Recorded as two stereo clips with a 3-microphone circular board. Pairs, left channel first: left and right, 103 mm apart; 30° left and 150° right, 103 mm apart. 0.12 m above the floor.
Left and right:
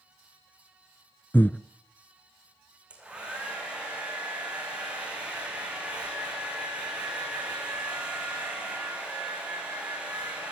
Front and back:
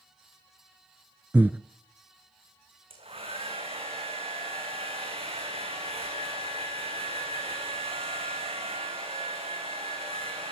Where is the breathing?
150° left, 0.6 m.